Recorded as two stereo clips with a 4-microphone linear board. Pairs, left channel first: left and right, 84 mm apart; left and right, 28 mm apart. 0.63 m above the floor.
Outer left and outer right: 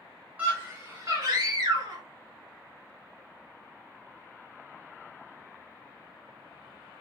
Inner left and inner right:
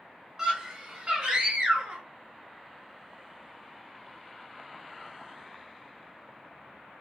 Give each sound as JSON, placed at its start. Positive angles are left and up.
{"t": 0.4, "sound": "a scream", "side_deg": -20, "distance_m": 1.0}